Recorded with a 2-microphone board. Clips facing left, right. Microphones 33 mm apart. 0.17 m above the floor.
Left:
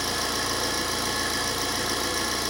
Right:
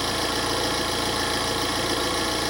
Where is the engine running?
35° right (ahead or behind), 3 m.